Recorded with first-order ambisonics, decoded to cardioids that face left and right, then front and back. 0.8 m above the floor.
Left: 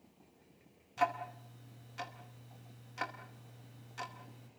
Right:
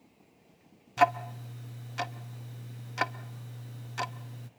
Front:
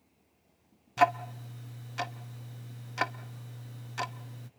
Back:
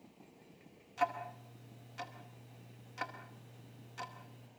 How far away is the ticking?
About 0.9 m.